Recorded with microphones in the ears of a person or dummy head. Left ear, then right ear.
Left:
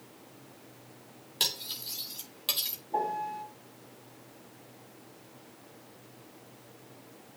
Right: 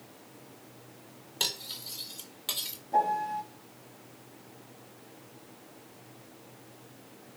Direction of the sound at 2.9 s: 35° right (ahead or behind).